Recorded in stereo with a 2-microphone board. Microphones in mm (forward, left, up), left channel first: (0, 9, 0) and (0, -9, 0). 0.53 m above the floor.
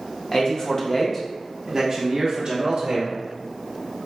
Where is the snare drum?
I don't hear a snare drum.